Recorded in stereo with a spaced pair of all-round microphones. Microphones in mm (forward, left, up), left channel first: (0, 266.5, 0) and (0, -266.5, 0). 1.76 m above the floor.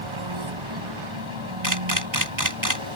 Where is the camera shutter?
35° right (ahead or behind).